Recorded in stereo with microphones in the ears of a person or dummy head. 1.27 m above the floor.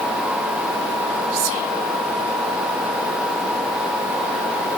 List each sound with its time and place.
1.3 s whispering: 80° right, 1.2 m